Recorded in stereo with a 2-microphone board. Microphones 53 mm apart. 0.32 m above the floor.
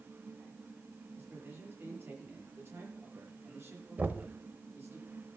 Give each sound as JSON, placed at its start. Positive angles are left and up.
{"t": 1.1, "sound": "a man speaking", "side_deg": -45, "distance_m": 7.5}
{"t": 4.0, "sound": "knocking", "side_deg": -30, "distance_m": 0.8}